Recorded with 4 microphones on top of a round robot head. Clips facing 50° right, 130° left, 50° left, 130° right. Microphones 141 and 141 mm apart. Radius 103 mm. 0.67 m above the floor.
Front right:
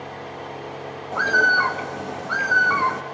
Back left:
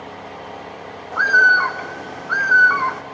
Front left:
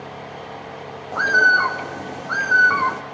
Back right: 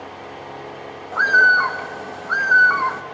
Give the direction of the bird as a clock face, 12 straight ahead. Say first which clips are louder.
Back left 3 dB, back right 1 dB; 12 o'clock.